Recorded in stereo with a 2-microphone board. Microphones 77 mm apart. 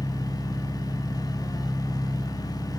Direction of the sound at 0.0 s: 75° left (ahead or behind).